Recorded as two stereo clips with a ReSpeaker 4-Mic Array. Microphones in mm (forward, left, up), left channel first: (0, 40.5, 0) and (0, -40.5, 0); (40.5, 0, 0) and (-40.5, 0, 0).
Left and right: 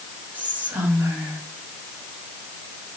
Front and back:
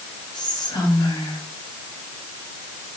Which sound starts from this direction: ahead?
Whispering, at 0.3 s.